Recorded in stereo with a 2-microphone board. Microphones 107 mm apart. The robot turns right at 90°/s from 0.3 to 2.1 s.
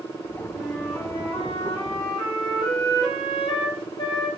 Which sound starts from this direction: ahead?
A flute, at 0.5 s.